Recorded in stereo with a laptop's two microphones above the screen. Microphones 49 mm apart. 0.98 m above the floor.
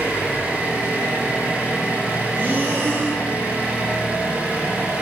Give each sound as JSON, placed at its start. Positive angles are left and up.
{"t": 0.0, "sound": "an engine running", "side_deg": -35, "distance_m": 1.4}
{"t": 2.3, "sound": "breathing", "side_deg": -40, "distance_m": 3.5}